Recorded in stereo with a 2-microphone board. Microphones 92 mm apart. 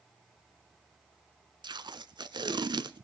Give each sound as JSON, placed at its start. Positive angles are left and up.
{"t": 1.6, "sound": "tape being pulled", "side_deg": -55, "distance_m": 0.6}